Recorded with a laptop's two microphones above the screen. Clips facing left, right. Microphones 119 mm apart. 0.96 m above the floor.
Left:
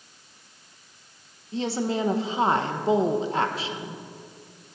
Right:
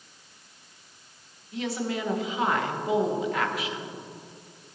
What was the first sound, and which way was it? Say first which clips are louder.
A woman speaking: left 4 dB; 30° left (ahead or behind).